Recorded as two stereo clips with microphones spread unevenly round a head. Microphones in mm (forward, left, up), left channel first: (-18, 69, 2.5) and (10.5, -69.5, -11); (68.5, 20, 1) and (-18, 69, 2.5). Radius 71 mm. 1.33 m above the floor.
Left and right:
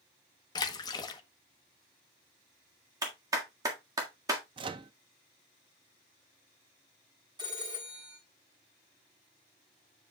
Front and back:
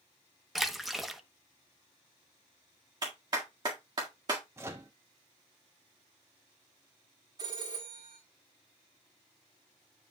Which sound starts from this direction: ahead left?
A splash, at 0.6 s.